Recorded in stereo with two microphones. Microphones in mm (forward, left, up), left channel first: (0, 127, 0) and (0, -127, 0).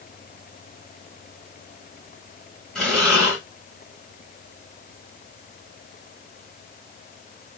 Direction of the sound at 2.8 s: Centre (ahead or behind).